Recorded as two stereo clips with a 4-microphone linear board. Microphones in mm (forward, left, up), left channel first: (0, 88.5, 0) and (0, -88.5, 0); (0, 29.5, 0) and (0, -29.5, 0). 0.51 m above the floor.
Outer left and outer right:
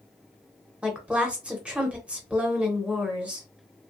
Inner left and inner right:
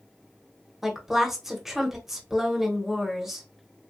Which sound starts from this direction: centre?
A woman speaking, at 0.8 s.